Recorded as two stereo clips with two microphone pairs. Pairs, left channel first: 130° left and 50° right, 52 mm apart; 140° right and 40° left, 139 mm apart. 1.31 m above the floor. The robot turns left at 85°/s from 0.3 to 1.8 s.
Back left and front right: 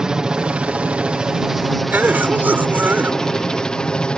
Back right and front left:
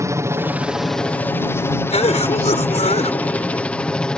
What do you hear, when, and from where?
0.0 s a helicopter: 5° left; by 4.2 s 145° left
1.9 s a cough: 105° right